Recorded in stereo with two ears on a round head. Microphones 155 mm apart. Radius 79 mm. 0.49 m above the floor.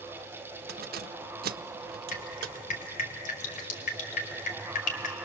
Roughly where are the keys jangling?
Right.